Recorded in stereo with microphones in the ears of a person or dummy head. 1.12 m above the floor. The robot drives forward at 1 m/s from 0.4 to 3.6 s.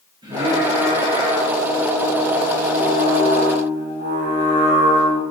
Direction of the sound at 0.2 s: 25° right (ahead or behind).